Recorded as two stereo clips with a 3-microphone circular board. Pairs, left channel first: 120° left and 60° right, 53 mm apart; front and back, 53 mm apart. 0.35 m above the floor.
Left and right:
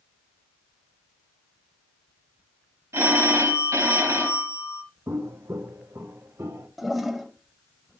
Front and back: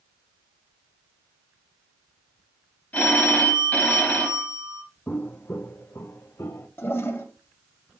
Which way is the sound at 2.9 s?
55° right.